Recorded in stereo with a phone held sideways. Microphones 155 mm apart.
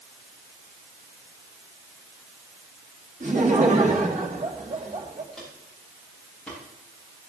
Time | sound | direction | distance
3.2 | laughter | 60° right (ahead or behind) | 3.5 m
5.3 | footsteps | 5° left (ahead or behind) | 8.5 m